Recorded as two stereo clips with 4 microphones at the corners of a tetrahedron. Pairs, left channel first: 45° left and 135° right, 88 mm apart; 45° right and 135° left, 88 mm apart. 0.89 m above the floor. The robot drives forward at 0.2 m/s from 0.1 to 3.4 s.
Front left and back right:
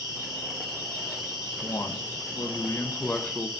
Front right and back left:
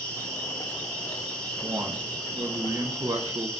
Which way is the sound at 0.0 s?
115° right.